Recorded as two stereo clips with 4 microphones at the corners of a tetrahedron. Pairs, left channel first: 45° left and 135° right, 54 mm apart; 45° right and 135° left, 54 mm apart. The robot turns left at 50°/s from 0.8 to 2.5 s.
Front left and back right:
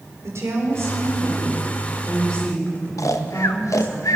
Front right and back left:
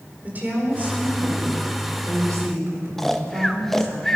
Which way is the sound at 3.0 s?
40° left.